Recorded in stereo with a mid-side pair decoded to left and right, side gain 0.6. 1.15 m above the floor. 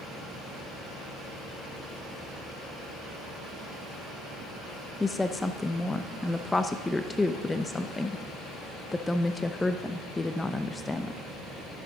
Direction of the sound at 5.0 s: 15° left.